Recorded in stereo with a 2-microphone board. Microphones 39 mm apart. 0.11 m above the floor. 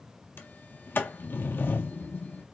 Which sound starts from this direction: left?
A sliding door, at 0.4 s.